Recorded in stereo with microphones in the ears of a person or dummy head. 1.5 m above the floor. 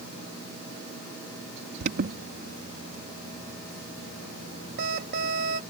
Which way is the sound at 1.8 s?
55° right (ahead or behind).